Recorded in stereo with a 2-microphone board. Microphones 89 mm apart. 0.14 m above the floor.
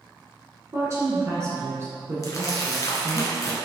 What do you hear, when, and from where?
0.7 s a woman speaking: 35° right (ahead or behind), 1.4 m
2.2 s crumpling: 40° left (ahead or behind), 1.0 m